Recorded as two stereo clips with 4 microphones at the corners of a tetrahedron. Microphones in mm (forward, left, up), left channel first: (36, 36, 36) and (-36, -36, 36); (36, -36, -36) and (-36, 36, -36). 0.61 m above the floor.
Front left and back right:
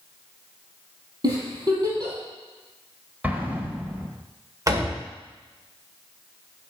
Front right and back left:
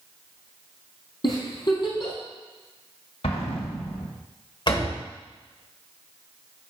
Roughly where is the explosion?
Ahead right.